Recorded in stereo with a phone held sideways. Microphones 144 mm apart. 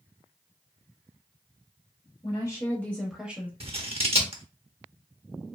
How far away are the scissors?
About 0.7 m.